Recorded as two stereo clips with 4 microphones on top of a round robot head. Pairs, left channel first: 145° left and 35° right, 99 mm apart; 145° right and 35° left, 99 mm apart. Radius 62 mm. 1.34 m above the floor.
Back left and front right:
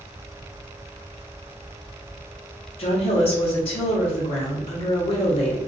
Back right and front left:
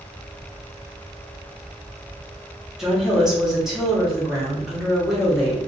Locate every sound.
2.8 s a woman speaking: 120° left, 0.9 m